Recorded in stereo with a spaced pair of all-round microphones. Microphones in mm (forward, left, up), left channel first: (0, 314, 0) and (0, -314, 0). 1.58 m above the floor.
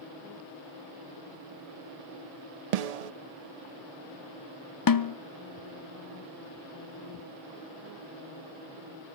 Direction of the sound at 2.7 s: 75° right (ahead or behind).